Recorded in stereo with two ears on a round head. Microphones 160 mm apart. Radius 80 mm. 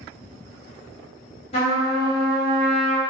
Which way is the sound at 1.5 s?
35° left (ahead or behind).